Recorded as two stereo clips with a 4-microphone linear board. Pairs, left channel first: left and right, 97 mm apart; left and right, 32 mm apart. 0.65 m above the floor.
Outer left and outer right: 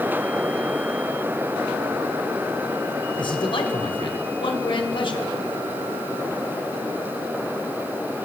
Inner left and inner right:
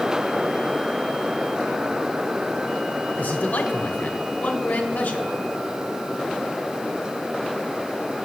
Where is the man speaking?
60° left (ahead or behind), 2 m.